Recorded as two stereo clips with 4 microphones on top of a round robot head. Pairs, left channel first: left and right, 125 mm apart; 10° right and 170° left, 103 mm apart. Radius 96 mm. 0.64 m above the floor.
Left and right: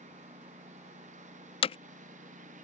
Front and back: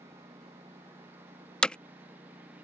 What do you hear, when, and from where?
0.0 s a lawn mower: 115° right; by 2.6 s 110° right
1.6 s hammering: 70° left